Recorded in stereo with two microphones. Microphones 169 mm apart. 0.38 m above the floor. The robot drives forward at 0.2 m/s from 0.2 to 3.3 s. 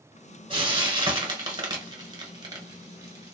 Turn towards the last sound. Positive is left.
turn(degrees=-20)  # may be behind; listen again after turning